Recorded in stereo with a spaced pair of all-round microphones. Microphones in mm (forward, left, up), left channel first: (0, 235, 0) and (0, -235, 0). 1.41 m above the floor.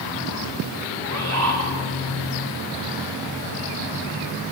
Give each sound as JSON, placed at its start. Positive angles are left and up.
{"t": 1.0, "sound": "a bird", "side_deg": -30, "distance_m": 10.0}